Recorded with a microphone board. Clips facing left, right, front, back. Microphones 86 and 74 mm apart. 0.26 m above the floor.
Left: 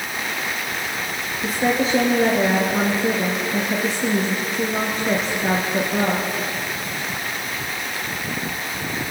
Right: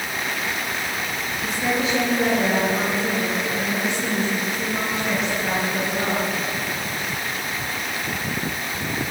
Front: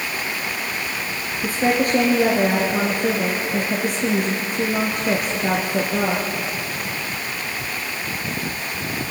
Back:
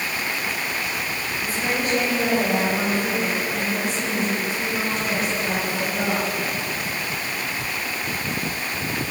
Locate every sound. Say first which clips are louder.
1.4 s a woman speaking: left 4 dB, front 6 dB; 40° left, 4 m